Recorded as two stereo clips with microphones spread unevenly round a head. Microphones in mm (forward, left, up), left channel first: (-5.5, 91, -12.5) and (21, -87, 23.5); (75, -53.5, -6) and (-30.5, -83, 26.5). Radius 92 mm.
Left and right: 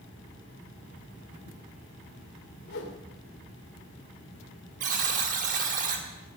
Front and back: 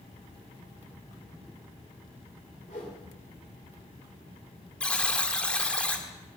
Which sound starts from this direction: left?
A whoosh, at 2.7 s.